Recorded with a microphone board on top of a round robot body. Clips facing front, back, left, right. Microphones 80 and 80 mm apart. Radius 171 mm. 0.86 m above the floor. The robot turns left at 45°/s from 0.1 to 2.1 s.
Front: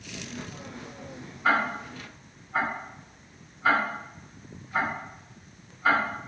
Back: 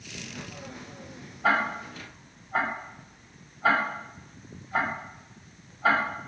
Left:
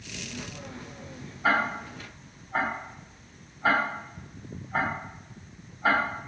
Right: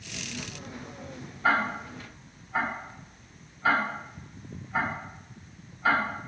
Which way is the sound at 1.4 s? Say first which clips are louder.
Even, even; 175° left.